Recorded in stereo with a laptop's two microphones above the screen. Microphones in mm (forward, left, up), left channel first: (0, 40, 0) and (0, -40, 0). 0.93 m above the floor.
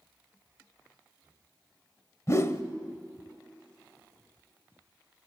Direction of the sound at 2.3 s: 35° left (ahead or behind).